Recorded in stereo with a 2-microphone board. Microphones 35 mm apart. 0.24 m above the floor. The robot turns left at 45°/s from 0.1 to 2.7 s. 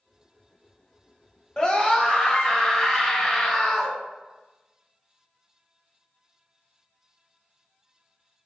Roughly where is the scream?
Left.